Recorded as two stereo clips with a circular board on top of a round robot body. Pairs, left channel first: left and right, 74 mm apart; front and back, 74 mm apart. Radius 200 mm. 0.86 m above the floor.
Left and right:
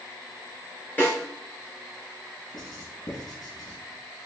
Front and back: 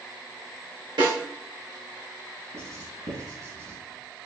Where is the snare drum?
155° left, 6 m.